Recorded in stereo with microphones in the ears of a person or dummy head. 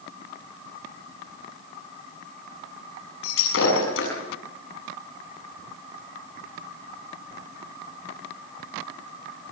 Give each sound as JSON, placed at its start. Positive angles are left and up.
{"t": 3.2, "sound": "breaking glass", "side_deg": 80, "distance_m": 7.5}